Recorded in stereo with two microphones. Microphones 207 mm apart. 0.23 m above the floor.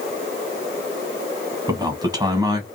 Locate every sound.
1.7 s a man speaking: 20° right (ahead or behind), 1.4 m